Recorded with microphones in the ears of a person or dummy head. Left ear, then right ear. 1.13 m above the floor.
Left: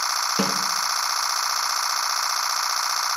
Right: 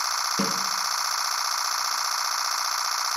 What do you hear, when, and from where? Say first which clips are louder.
0.4 s a snare drum: left 3 dB; 15° left (ahead or behind), 1.8 m